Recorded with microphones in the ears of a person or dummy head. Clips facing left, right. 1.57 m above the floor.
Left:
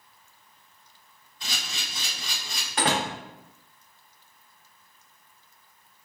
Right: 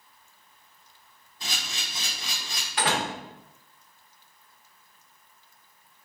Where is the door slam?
40° left (ahead or behind), 0.9 m.